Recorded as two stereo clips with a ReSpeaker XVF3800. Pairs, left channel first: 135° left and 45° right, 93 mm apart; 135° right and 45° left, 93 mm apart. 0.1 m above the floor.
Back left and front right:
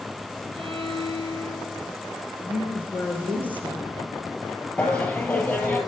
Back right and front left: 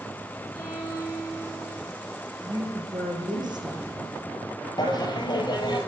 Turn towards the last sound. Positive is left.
turn(degrees=-150)